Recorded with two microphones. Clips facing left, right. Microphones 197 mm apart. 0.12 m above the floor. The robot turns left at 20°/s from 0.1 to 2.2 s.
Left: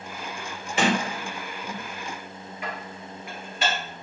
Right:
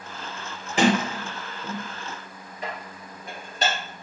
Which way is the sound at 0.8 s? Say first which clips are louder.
Right 3 dB; 35° right (ahead or behind).